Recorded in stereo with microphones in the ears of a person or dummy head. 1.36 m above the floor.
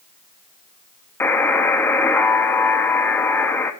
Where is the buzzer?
10° left (ahead or behind), 1.1 m.